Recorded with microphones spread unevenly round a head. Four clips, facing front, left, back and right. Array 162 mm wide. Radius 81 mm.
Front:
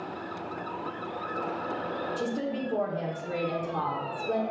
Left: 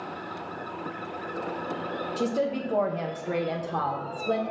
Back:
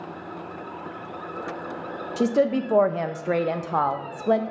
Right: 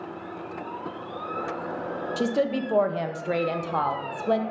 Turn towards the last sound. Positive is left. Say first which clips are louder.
# right 3 dB, back 14 dB
turn(degrees=-170)